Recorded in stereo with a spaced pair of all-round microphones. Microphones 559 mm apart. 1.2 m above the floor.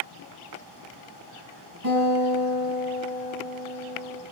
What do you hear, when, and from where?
1.8 s a guitar: 35° right (ahead or behind), 7 m